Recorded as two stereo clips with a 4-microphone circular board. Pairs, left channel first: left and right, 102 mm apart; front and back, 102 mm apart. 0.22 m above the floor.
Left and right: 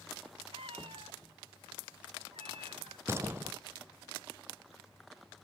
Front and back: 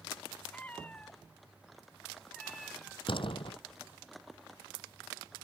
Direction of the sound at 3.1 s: 25° right.